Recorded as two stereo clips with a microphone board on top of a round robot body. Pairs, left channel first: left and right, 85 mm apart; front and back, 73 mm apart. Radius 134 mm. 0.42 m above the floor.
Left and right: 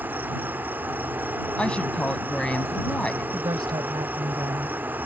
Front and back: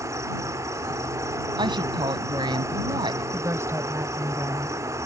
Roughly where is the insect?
Behind right.